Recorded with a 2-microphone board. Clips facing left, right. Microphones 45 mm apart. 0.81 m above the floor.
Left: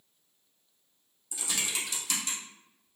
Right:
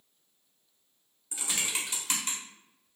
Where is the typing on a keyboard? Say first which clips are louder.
Even; 30° right (ahead or behind), 0.9 m.